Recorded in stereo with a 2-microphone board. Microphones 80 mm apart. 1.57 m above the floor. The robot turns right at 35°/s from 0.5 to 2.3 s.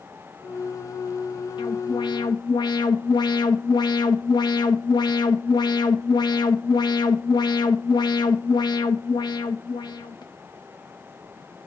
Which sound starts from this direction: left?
An alarm, at 1.6 s.